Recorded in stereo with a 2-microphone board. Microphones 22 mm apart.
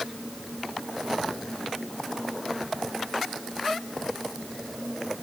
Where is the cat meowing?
No cat meowing in this recording.